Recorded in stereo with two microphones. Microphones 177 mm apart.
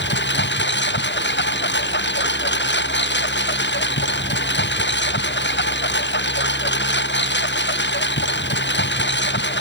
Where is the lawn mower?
85° left.